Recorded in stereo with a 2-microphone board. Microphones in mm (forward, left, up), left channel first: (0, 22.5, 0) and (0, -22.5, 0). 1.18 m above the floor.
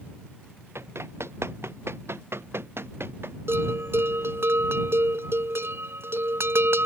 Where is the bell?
60° right (ahead or behind).